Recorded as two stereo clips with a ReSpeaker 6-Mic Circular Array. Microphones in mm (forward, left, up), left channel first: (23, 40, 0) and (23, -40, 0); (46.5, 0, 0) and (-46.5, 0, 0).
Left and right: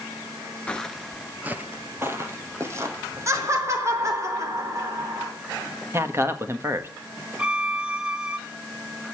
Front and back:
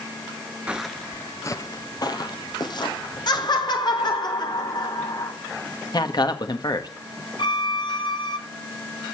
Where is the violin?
10° right, 1.5 m.